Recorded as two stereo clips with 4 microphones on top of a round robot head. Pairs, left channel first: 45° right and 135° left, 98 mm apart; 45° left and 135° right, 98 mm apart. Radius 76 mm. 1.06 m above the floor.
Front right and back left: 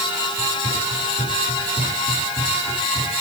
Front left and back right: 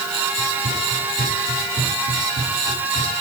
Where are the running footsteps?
145° right, 9.5 m; by 3.1 s 140° right, 10.5 m.